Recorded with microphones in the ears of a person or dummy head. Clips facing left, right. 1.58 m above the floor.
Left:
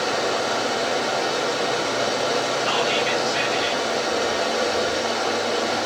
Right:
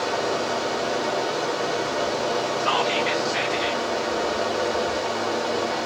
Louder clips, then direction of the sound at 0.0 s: Left 1 dB; 15° left (ahead or behind).